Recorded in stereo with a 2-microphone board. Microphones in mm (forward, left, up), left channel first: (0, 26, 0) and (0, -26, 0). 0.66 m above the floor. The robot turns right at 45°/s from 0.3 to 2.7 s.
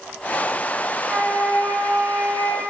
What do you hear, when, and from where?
1.0 s a flute: 135° right, 1.3 m; by 2.6 s 65° right, 1.3 m